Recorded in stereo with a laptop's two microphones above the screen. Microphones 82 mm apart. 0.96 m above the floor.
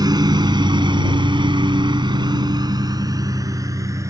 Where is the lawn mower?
55° right (ahead or behind); by 4.1 s 40° right (ahead or behind).